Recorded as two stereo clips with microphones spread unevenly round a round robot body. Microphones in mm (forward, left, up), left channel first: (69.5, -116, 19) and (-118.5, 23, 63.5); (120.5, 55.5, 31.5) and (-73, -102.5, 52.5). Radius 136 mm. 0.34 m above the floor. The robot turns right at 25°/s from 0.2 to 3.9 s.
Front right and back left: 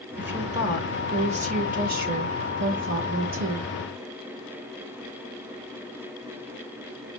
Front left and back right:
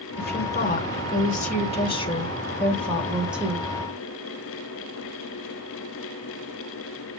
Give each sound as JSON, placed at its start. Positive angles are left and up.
{"t": 0.2, "sound": "a woman speaking", "azimuth_deg": 50, "distance_m": 1.2}